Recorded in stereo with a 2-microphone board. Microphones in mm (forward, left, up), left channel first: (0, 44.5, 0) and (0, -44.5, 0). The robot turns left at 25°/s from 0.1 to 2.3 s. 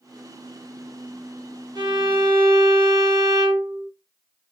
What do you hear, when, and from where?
1.8 s a violin: 45° right (ahead or behind), 1.3 m; by 3.9 s 60° right (ahead or behind), 1.3 m